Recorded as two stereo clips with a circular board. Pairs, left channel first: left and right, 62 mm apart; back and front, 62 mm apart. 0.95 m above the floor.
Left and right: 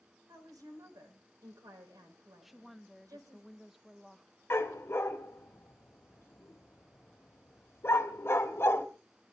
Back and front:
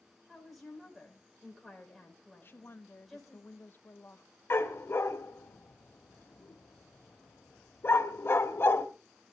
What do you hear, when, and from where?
0.3 s a woman speaking: 90° right, 4.5 m
2.4 s a woman speaking: straight behind, 0.9 m
4.5 s a dog barking: 135° left, 1.6 m